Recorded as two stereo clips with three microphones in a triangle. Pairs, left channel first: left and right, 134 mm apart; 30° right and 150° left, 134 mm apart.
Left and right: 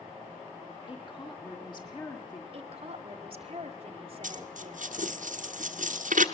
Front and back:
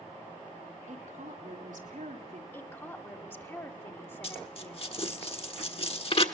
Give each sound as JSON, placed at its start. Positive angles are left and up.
{"t": 0.9, "sound": "a woman speaking", "azimuth_deg": 140, "distance_m": 4.5}
{"t": 2.5, "sound": "a woman speaking", "azimuth_deg": -95, "distance_m": 1.4}
{"t": 4.2, "sound": "a dropped coin", "azimuth_deg": -75, "distance_m": 1.3}